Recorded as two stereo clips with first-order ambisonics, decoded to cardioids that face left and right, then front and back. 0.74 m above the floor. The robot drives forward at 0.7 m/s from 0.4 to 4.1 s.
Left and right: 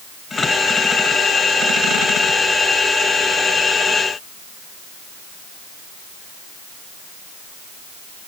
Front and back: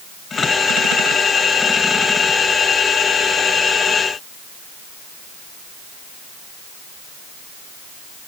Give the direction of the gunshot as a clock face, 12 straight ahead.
No gunshot in this recording.